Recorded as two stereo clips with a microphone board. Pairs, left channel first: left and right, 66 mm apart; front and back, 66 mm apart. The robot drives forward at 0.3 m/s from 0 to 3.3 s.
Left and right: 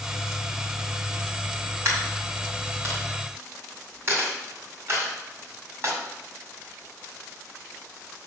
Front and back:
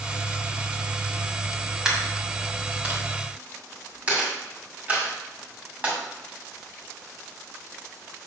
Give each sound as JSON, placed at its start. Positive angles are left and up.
{"t": 1.9, "sound": "a dropped coin", "azimuth_deg": -105, "distance_m": 2.0}